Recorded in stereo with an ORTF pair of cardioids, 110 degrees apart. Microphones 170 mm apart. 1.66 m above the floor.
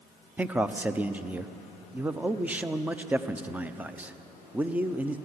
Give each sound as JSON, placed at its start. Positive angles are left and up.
{"t": 0.4, "sound": "a man speaking", "azimuth_deg": -10, "distance_m": 0.9}